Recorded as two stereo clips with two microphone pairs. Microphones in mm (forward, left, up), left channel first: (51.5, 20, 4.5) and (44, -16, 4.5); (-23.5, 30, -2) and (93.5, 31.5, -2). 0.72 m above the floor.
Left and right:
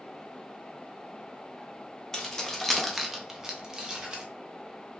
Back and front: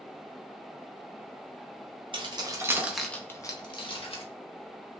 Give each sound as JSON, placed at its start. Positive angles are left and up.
{"t": 2.1, "sound": "keys jangling", "azimuth_deg": 5, "distance_m": 0.7}